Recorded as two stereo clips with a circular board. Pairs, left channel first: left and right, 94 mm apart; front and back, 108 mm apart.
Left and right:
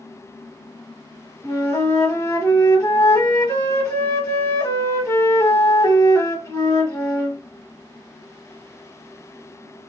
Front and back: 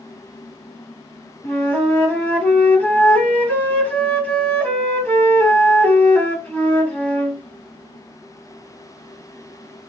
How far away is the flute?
About 1.5 m.